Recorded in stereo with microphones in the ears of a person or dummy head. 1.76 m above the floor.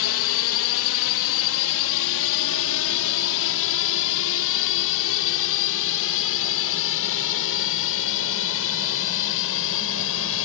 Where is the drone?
70° left (ahead or behind).